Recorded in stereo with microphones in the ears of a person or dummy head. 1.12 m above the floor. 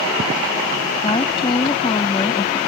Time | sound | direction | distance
1.0 | a woman speaking | 25° left (ahead or behind) | ?